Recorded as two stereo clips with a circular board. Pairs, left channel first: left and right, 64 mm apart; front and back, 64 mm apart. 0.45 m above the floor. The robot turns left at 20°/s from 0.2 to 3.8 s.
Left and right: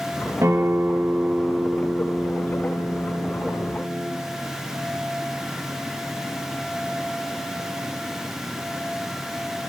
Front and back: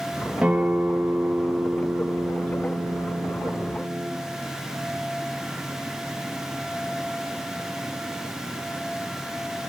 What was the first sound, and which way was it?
A guitar, 115° right.